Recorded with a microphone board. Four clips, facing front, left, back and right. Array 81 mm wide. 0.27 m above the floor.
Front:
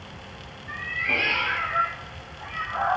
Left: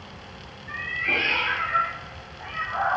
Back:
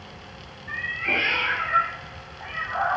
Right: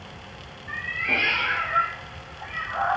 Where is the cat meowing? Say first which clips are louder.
Even, back 1 dB; 165° left, 4 m; by 3.0 s 145° left, 3 m.